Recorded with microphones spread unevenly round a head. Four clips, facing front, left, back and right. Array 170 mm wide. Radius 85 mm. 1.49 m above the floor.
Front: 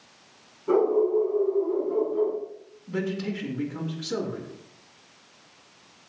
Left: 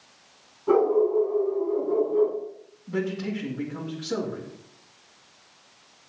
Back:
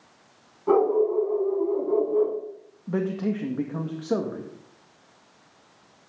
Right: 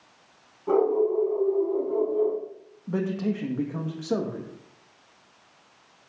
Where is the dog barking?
170° right, 6 m; by 2.4 s 175° left, 7 m.